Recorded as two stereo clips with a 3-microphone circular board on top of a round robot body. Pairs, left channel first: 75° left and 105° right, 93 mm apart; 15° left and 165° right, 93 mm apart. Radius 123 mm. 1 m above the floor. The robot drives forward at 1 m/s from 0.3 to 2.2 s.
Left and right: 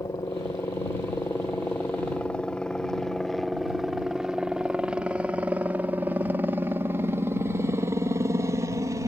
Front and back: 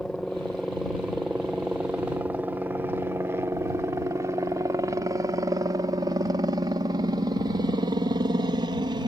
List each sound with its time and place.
0.0 s a helicopter: 100° left; by 9.1 s 150° right